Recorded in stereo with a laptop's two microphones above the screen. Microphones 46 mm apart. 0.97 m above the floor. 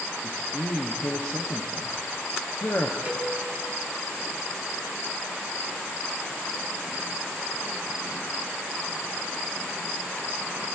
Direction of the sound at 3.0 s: 30° right (ahead or behind).